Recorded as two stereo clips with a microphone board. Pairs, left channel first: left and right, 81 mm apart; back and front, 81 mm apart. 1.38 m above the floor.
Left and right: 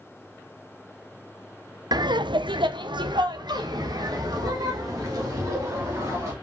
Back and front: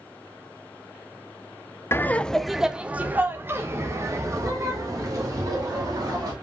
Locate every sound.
1.9 s laughter: 120° right, 0.6 m; by 6.3 s 45° right, 3 m